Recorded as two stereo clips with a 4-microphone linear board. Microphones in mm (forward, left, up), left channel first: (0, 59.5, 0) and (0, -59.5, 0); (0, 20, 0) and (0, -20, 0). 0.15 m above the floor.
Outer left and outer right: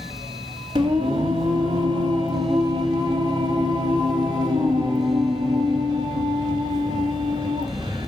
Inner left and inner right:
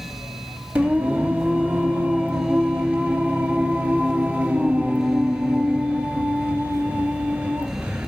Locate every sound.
0.8 s singing: 40° right (ahead or behind), 3 m